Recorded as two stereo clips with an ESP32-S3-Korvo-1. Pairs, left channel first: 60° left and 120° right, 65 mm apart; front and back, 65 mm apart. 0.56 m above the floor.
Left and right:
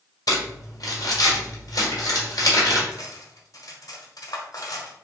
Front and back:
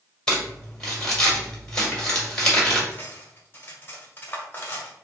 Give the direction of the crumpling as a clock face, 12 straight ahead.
9 o'clock.